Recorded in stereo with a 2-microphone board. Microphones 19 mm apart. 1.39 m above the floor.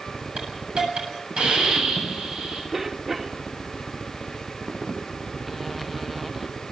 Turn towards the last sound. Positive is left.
turn(degrees=-25)  # may be behind; listen again after turning